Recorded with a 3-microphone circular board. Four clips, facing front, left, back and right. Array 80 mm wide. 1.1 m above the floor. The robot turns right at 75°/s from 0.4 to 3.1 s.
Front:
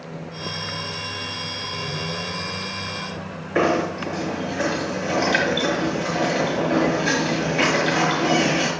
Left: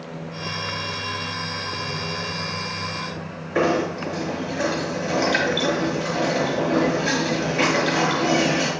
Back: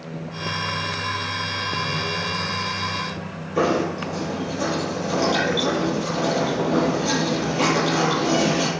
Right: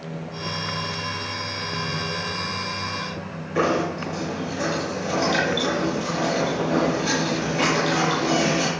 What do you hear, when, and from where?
3.5 s knocking: 30° left, 6 m